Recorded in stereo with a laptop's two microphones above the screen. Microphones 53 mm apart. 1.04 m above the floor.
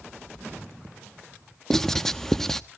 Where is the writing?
10° left (ahead or behind), 0.8 m.